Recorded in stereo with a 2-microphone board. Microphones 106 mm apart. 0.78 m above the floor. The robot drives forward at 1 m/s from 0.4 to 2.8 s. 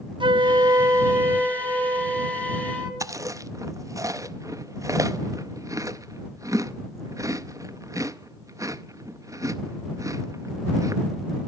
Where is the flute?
50° right (ahead or behind), 0.6 m; by 2.9 s 10° right (ahead or behind), 3 m.